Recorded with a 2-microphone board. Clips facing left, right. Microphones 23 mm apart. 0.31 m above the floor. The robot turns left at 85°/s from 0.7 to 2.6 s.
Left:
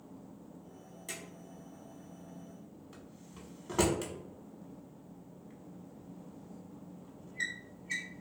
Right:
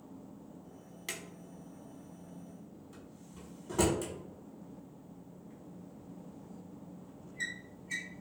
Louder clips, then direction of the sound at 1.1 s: Right 2 dB; 80° right.